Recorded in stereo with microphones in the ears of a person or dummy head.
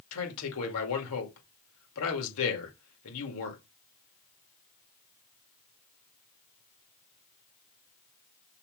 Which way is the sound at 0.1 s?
85° left.